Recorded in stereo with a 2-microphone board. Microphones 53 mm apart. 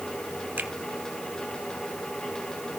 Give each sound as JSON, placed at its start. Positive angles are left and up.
{"t": 0.6, "sound": "a finger snap", "side_deg": -40, "distance_m": 1.9}